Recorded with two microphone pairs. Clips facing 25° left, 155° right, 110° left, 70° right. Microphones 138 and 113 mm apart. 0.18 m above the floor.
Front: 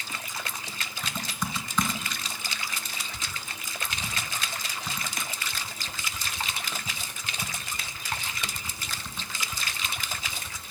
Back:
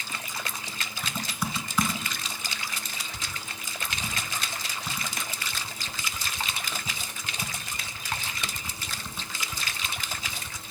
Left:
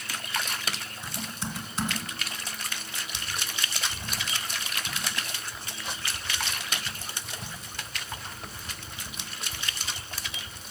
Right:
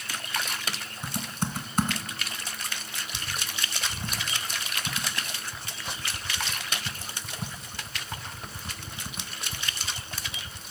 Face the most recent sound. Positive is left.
turn(degrees=-75)